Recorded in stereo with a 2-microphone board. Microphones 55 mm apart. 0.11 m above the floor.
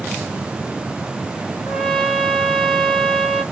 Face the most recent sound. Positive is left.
turn(degrees=0)  # may be behind; listen again after turning